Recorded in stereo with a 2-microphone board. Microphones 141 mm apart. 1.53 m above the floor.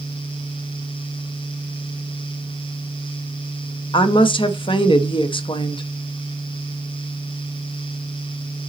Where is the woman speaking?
35° left (ahead or behind), 0.9 m.